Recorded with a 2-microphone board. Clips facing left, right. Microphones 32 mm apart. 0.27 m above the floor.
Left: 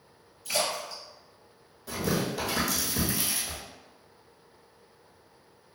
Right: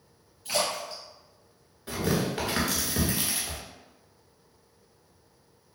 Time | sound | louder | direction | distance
0.5 | a splash | right 1 dB | 45° right (ahead or behind) | 1.3 m
1.9 | tearing paper | right 1 dB | 40° right (ahead or behind) | 1.0 m